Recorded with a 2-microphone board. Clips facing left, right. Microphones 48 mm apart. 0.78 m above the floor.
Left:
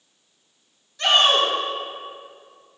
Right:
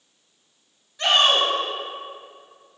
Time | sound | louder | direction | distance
1.0 | a shout | left 1 dB | 15° right (ahead or behind) | 1.6 m